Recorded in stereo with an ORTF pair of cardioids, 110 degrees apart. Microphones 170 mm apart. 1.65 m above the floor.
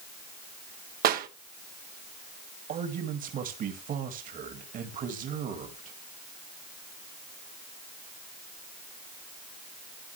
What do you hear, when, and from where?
1.0 s a clap: 65° right, 1.2 m
2.7 s a man speaking: 55° right, 2 m